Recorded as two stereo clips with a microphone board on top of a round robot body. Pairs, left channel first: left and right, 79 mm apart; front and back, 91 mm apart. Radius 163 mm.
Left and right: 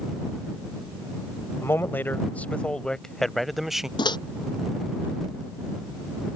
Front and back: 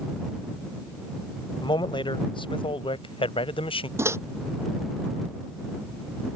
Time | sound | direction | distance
1.6 | a man speaking | 30° left | ?
4.0 | a microwave | 120° left | ?